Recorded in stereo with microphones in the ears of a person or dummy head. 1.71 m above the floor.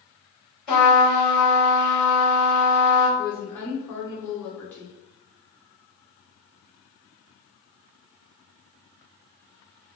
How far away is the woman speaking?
About 1.1 m.